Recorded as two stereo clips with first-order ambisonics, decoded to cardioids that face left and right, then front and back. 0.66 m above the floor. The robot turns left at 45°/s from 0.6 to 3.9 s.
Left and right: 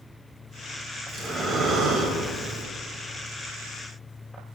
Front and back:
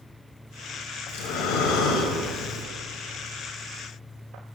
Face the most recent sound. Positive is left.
turn(degrees=-120)